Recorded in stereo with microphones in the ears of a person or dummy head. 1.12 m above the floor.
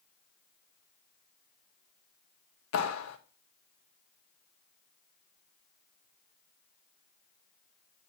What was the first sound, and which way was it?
A clap, 75° left (ahead or behind).